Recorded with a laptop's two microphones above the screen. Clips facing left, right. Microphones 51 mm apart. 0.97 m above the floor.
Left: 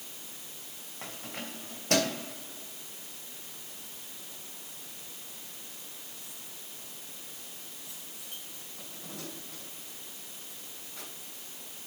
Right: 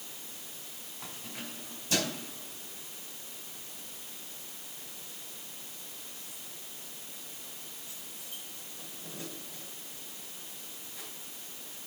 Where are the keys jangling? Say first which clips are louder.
Left 3 dB; 55° left (ahead or behind), 3 m; by 11.1 s 65° left (ahead or behind), 6 m.